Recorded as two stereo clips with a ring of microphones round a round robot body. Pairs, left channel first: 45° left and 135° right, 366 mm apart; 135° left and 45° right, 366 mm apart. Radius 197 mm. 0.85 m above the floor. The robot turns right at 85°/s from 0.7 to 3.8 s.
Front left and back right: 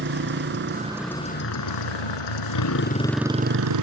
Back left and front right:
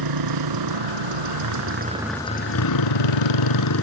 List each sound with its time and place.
0.0 s a motorcycle: 75° right; by 3.8 s 170° right